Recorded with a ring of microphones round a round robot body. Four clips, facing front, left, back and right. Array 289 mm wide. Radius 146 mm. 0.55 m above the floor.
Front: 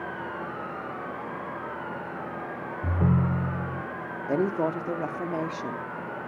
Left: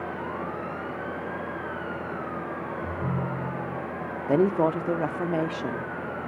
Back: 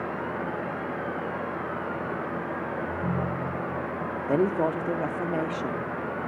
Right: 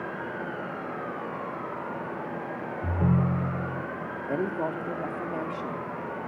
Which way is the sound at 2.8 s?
35° right.